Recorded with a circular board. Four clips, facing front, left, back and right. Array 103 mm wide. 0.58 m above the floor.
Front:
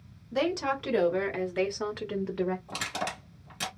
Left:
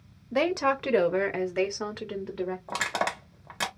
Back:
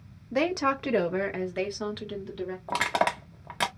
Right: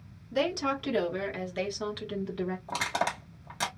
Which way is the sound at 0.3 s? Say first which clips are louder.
Left 4 dB, back 2 dB; 135° left.